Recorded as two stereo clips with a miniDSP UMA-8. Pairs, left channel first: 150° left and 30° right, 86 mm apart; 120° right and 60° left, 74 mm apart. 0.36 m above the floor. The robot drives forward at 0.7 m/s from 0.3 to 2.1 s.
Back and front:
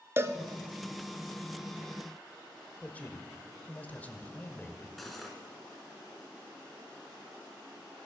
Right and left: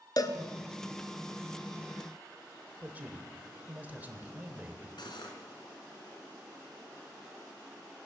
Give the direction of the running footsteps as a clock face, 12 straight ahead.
No running footsteps in this recording.